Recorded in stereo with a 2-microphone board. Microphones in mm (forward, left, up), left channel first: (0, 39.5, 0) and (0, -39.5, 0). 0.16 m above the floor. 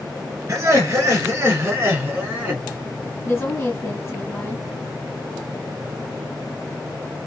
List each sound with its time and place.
0.5 s laughter: 35° right (ahead or behind), 2.5 m; by 2.6 s 25° right (ahead or behind), 1.4 m
3.2 s a woman speaking: 30° left (ahead or behind), 2.0 m